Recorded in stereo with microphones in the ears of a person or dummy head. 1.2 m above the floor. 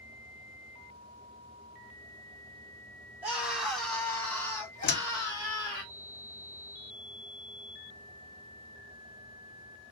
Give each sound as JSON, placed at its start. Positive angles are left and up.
{"t": 3.2, "sound": "a scream", "side_deg": -5, "distance_m": 1.3}
{"t": 4.8, "sound": "a door slam", "side_deg": 50, "distance_m": 0.5}